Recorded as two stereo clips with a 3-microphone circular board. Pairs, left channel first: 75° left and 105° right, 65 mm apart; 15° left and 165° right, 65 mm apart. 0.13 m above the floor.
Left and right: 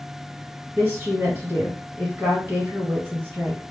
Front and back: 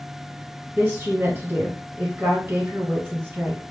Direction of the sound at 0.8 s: 135° right.